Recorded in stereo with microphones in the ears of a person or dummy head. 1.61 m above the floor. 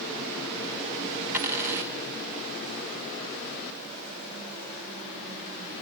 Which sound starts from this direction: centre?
A dropped coin, at 1.3 s.